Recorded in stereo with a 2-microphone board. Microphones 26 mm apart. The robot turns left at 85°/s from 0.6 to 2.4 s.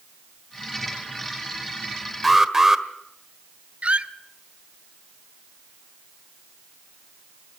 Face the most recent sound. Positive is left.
turn(degrees=-55)  # may be behind; listen again after turning